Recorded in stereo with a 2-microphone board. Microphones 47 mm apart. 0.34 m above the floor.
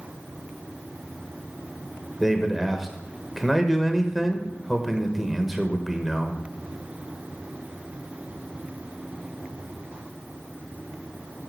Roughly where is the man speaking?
Centre.